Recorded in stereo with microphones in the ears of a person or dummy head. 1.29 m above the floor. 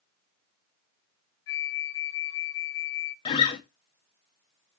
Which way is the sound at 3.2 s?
35° left (ahead or behind).